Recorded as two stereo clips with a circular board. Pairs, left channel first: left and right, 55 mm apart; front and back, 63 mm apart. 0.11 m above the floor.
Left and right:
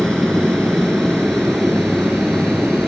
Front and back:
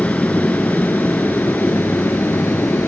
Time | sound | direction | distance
0.0 | an aircraft | 15° left | ?